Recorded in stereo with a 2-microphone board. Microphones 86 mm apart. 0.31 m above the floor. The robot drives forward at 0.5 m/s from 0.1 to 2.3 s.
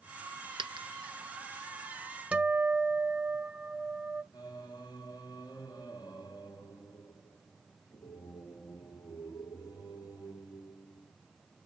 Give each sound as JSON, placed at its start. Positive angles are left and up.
{"t": 0.6, "sound": "a dropped coin", "side_deg": -80, "distance_m": 0.6}
{"t": 2.3, "sound": "a guitar", "side_deg": -15, "distance_m": 1.1}
{"t": 4.3, "sound": "singing", "side_deg": 45, "distance_m": 2.0}